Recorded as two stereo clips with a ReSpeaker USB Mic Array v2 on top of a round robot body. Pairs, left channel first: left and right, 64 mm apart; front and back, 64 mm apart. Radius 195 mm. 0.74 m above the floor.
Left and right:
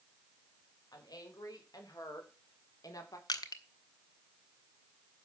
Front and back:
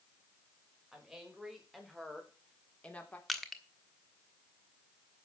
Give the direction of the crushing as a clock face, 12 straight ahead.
9 o'clock.